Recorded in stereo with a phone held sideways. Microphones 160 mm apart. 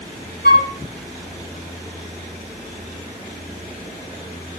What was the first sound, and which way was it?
A flute, 85° left.